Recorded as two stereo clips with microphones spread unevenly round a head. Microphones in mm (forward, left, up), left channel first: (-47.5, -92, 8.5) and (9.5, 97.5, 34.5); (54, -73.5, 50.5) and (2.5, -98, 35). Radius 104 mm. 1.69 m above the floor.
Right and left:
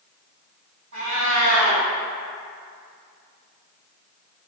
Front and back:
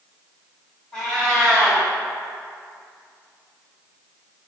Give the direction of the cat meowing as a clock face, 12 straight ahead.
10 o'clock.